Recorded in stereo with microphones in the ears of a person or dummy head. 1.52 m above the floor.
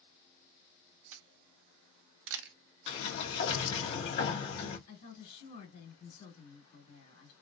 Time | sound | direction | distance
1.1 | a camera shutter | 70° right (ahead or behind) | 0.5 m
2.9 | a sliding door | 60° left (ahead or behind) | 1.5 m
4.9 | a woman speaking | 60° left (ahead or behind) | 2.5 m